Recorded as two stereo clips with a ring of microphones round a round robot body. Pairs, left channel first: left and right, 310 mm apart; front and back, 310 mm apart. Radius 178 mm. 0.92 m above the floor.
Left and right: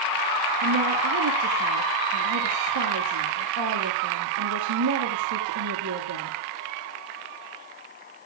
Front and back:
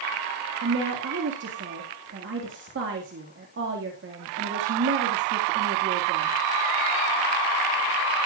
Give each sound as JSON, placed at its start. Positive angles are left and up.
{"t": 0.6, "sound": "a woman speaking", "azimuth_deg": -125, "distance_m": 1.8}